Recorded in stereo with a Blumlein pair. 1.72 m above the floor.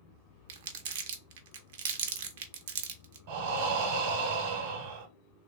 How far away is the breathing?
About 0.9 m.